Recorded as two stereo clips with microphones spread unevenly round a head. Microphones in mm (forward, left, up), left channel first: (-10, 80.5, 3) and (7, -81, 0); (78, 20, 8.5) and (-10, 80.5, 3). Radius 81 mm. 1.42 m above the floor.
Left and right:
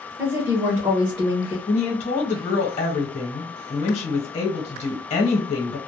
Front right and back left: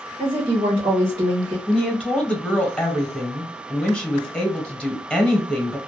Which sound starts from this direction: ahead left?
A woman speaking, at 1.7 s.